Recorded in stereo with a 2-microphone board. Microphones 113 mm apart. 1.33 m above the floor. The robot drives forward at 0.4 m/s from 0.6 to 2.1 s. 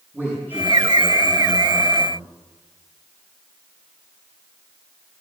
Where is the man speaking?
20° right (ahead or behind), 7 m.